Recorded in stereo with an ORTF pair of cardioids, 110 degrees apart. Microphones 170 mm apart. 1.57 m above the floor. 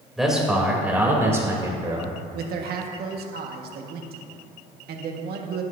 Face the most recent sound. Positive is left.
turn(degrees=-65)